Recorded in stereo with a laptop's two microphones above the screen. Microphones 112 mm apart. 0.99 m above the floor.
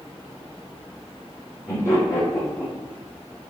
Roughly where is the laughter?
Left.